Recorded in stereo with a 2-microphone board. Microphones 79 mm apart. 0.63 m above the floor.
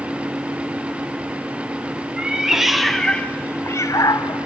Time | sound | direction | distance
2.2 | a cat meowing | 15° right (ahead or behind) | 1.7 m